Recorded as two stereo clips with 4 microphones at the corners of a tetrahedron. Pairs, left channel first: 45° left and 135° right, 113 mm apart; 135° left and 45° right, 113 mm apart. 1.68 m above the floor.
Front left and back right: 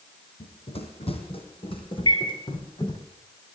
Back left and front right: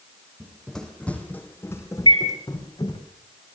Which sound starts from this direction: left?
A bird, at 2.1 s.